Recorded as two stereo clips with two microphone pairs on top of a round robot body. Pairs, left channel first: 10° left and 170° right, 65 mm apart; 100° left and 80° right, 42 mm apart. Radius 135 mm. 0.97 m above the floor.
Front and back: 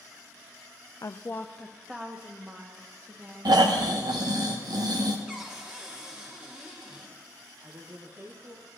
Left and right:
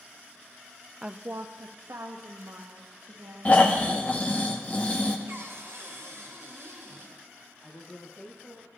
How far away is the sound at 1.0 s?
About 0.5 m.